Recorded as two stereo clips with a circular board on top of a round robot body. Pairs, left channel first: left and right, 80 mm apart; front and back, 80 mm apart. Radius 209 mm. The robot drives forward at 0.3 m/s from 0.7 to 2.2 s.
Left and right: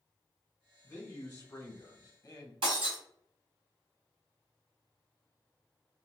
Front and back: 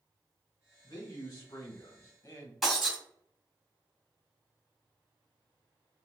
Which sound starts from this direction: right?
Breaking glass, at 2.6 s.